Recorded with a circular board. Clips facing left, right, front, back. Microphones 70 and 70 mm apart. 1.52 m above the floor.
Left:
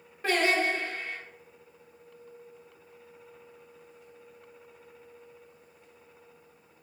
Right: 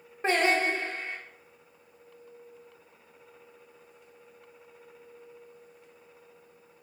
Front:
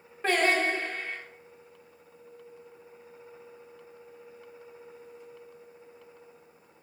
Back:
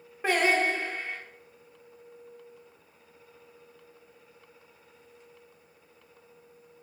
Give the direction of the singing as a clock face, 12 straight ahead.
4 o'clock.